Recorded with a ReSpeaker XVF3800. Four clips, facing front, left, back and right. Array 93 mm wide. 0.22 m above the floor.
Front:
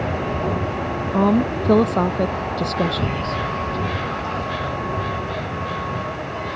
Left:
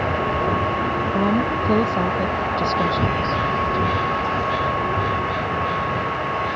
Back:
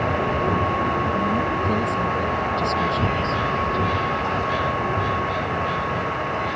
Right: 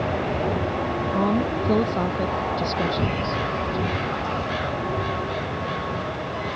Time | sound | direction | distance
1.1 | a woman speaking | 5° left | ?